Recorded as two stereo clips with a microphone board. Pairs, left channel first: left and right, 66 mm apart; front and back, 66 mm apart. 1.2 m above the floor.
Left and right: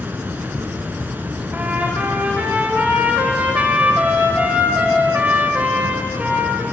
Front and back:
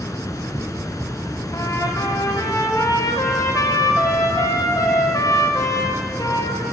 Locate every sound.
0.0 s running water: 30° right, 4.5 m
1.5 s a trumpet: 25° right, 6 m